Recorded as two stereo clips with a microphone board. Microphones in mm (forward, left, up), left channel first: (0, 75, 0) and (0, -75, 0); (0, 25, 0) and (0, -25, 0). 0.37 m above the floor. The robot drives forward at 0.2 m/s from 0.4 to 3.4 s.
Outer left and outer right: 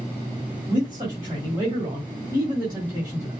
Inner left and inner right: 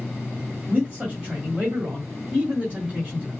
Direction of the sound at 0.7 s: 30° right (ahead or behind).